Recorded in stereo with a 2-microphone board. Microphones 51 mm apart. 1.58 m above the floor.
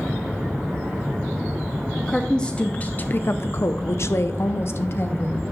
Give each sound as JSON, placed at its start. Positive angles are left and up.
{"t": 2.1, "sound": "a woman speaking", "side_deg": 10, "distance_m": 0.9}